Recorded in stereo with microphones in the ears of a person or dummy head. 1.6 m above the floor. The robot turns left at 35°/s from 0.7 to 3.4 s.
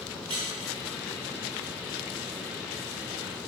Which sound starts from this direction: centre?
A squeak, at 0.3 s.